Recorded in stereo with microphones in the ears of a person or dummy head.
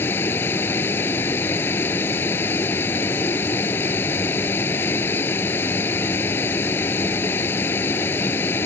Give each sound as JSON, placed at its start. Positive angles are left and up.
{"t": 0.0, "sound": "a vehicle", "side_deg": 10}